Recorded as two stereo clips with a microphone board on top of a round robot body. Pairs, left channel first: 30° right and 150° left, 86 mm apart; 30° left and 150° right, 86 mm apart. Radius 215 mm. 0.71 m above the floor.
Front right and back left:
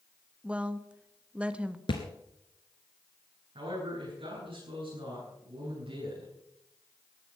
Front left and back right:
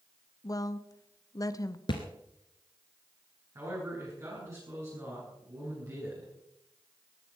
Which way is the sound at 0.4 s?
75° left.